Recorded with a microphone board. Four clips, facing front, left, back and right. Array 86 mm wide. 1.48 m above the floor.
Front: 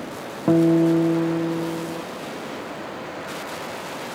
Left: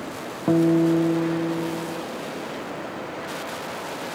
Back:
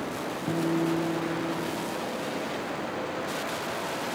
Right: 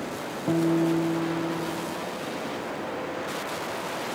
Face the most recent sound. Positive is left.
turn(degrees=25)